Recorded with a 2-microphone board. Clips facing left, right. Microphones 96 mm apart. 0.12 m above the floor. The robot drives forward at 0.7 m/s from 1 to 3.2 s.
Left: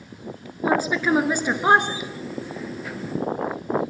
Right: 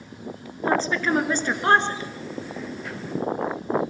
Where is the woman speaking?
10° left (ahead or behind), 2 m; by 2.1 s 15° left (ahead or behind), 1.7 m.